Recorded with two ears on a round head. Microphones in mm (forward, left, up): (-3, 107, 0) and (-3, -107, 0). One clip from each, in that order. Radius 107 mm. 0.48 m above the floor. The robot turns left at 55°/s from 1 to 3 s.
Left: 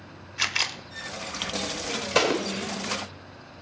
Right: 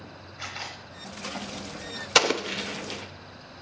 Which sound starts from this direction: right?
An explosion, at 2.1 s.